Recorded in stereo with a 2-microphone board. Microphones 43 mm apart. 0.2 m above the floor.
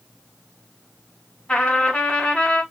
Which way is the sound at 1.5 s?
20° left (ahead or behind).